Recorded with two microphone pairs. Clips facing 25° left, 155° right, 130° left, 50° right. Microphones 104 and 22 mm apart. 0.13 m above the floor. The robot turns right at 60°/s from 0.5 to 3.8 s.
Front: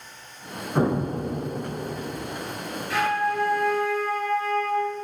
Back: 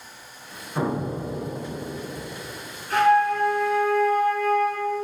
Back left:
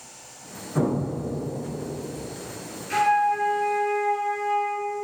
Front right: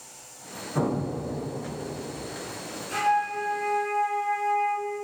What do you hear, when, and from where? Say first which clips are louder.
0.8 s an explosion: front 3 dB, back left 2 dB; 45° left, 1.3 m; by 2.2 s 130° left, 1.3 m
2.9 s a flute: back 6 dB, back left 4 dB; 165° left, 2.5 m; by 4.9 s 140° right, 2.5 m